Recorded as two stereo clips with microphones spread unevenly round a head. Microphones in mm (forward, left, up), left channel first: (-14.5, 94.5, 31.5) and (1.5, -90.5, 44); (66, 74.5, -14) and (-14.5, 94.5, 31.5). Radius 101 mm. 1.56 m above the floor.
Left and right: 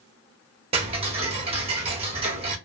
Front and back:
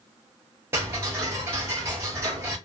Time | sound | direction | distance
0.7 | ticking | 145° right | 0.6 m